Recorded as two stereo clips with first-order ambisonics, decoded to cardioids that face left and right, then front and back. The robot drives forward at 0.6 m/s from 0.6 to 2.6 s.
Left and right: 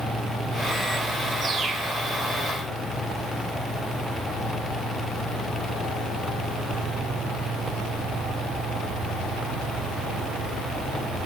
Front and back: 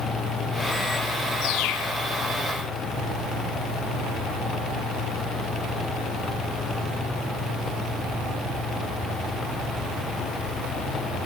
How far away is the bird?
About 2 m.